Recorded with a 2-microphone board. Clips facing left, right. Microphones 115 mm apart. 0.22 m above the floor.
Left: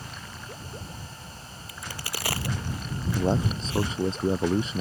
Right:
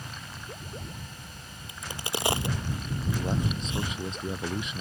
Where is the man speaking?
35° left (ahead or behind).